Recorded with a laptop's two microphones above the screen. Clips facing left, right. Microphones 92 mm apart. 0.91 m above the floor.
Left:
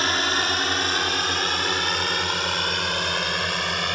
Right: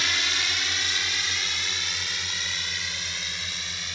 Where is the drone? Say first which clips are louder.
Left 7 dB; 50° left (ahead or behind); by 4.0 s 70° left (ahead or behind).